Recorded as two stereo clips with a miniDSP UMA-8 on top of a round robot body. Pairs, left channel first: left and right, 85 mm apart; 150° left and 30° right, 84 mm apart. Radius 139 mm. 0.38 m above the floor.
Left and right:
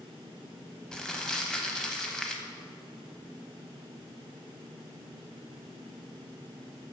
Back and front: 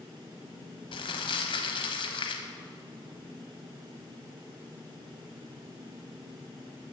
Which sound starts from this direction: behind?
Crumpling, at 0.9 s.